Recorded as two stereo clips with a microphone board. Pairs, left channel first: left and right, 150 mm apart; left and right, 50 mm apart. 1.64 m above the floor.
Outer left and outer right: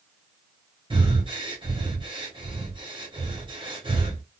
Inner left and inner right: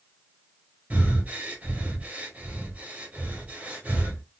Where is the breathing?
35° right (ahead or behind), 1.4 m.